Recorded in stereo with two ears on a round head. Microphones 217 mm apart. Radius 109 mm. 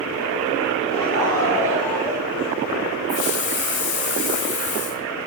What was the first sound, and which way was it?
Laughter, 25° left (ahead or behind).